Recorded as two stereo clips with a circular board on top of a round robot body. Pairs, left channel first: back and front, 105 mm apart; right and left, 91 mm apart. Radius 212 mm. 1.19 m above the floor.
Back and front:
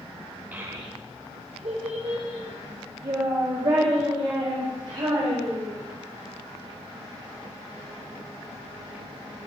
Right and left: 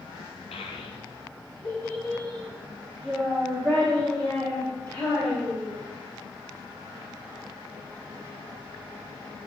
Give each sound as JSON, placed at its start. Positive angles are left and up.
{"t": 0.5, "sound": "a child speaking", "azimuth_deg": -75, "distance_m": 0.5}